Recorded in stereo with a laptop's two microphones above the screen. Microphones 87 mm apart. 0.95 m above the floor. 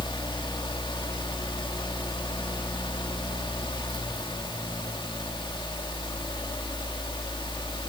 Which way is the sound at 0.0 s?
65° left (ahead or behind).